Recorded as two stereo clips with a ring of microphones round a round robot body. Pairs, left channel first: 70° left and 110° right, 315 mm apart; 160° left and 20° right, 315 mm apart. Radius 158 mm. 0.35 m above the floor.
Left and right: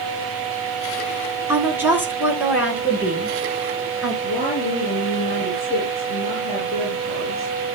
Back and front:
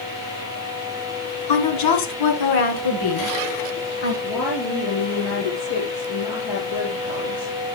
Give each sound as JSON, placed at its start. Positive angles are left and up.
{"t": 1.5, "sound": "a woman speaking", "azimuth_deg": 165, "distance_m": 3.5}
{"t": 4.2, "sound": "a woman speaking", "azimuth_deg": 140, "distance_m": 5.0}